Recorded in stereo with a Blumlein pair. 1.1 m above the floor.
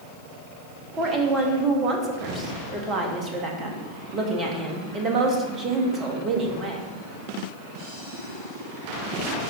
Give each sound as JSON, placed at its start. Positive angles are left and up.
{"t": 1.0, "sound": "a woman speaking", "azimuth_deg": -20, "distance_m": 1.7}